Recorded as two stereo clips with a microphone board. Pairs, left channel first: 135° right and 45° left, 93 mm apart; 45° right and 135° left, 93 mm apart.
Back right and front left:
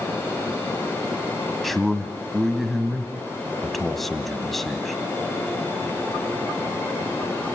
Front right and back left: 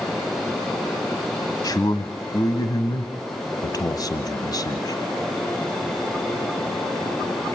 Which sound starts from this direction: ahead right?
A man speaking, at 1.6 s.